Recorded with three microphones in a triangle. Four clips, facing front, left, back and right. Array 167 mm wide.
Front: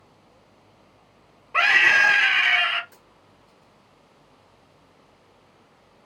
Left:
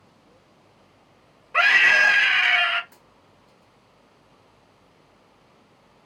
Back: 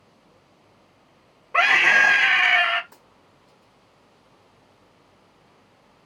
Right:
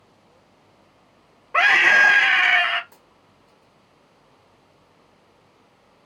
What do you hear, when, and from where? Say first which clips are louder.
1.5 s a scream: right 2 dB, back 1 dB; 120° right, 0.9 m
2.9 s a dropped coin: even, back 1 dB; 155° right, 1.6 m